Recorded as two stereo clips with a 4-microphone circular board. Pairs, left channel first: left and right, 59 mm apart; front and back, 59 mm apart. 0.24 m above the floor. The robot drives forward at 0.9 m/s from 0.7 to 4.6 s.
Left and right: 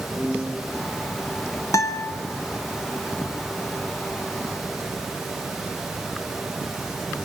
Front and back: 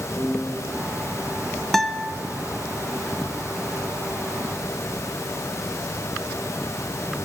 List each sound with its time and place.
0.1 s a piano: 90° left, 8 m
1.7 s a guitar: 85° left, 0.8 m; by 2.1 s 110° left, 0.8 m